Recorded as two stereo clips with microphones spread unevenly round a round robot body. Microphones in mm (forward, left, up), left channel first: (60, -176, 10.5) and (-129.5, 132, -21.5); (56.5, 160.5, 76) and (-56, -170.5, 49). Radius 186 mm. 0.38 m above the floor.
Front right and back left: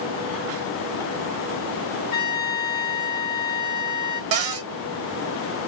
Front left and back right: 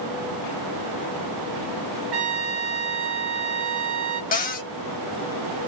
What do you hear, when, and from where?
2.1 s a trumpet: 125° right, 1.1 m
4.3 s a cupboard door: 140° left, 0.8 m